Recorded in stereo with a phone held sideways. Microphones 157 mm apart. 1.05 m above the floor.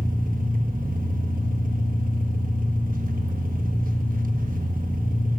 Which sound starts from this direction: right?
An engine running, at 0.0 s.